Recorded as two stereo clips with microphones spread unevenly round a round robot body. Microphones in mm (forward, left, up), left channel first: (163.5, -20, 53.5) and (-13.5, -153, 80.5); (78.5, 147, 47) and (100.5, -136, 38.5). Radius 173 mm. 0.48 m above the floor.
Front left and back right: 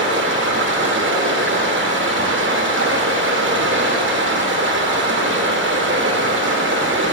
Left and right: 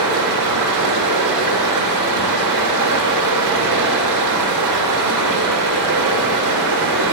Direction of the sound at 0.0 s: 105° right.